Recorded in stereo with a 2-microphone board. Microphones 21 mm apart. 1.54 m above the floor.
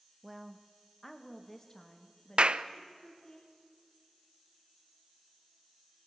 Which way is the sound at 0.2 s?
5° right (ahead or behind).